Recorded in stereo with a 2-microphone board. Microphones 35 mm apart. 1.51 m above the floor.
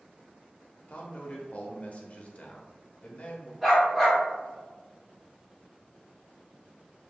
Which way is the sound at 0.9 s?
45° left (ahead or behind).